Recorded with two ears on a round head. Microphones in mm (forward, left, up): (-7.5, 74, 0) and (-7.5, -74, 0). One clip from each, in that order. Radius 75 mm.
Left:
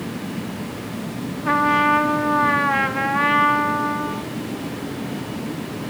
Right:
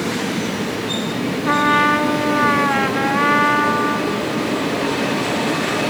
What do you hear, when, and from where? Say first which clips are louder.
1.4 s a trumpet: right 2 dB; centre (ahead or behind), 0.6 m